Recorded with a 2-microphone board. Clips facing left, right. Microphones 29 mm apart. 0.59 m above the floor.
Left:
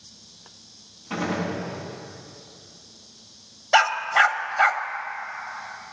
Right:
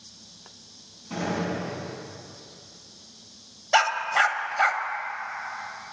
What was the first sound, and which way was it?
A gunshot, 30° left (ahead or behind).